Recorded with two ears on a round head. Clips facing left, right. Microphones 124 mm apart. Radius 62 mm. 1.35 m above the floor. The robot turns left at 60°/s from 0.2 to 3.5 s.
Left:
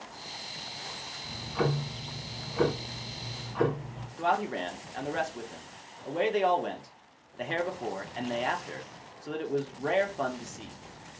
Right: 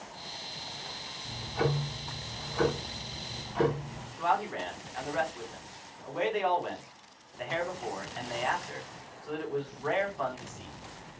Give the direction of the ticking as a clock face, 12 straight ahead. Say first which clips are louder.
Left 1 dB; 9 o'clock.